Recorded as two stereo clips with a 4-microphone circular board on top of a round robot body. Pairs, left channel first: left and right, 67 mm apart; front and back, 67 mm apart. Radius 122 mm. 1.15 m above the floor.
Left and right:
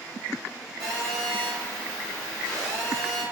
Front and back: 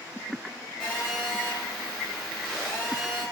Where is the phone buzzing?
95° right, 1.6 m.